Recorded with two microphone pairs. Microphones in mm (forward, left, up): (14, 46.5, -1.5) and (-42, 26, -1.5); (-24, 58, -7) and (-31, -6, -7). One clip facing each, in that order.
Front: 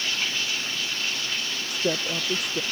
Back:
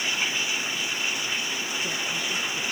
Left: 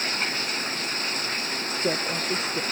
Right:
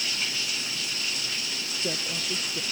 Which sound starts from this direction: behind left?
Running water, at 0.0 s.